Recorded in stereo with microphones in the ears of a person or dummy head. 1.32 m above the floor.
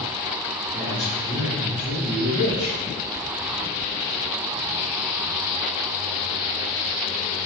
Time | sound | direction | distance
0.7 | a man speaking | 5° right (ahead or behind) | 2.5 m